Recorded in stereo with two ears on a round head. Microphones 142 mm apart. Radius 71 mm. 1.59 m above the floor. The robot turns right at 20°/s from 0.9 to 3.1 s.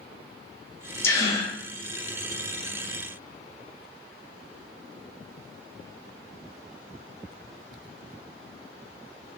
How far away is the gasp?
About 0.6 m.